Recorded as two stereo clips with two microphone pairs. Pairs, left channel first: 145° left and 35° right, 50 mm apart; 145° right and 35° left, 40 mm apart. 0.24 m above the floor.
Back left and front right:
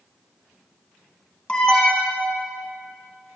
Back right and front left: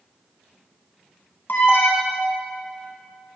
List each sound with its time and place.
1.5 s an alarm: 155° right, 1.3 m